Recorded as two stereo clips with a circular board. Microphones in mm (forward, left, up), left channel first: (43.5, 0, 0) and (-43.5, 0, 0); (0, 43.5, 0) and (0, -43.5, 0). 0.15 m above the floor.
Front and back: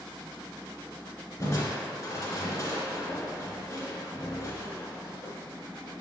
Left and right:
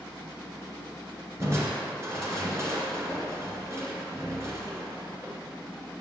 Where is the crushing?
45° right, 2 m.